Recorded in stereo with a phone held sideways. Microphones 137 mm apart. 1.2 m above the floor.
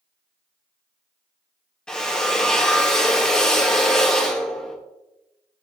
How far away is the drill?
About 2 m.